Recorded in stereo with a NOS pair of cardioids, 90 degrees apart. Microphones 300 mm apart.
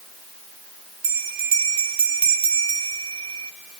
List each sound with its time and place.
1.0 s a bell: 60° right, 2.5 m